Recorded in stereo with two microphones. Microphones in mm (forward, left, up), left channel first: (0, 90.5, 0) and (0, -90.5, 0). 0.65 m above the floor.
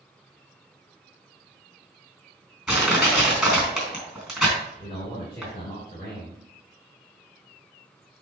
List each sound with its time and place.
2.7 s crushing: centre (ahead or behind), 3.5 m
4.8 s a man speaking: 25° left (ahead or behind), 2.5 m